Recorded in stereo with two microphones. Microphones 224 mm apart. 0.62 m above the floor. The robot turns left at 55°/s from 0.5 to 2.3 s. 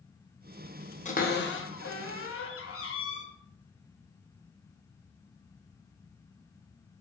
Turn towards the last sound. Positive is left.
turn(degrees=75)  # may be behind; listen again after turning